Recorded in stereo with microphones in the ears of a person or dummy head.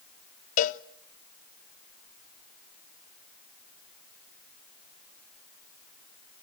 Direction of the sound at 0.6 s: 45° left (ahead or behind).